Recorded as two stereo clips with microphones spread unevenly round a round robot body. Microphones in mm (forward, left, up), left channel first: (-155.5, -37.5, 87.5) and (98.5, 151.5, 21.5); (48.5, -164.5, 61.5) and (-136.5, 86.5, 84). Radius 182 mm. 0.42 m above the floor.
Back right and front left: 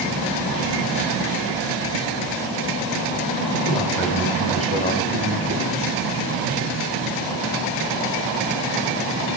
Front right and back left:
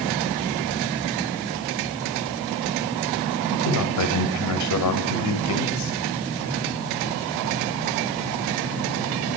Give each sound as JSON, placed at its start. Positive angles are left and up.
{"t": 3.5, "sound": "a man speaking", "azimuth_deg": -70, "distance_m": 2.5}